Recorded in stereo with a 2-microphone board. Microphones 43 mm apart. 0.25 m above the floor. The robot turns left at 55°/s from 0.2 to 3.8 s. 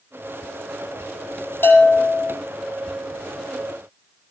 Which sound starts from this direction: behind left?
A bell, at 1.6 s.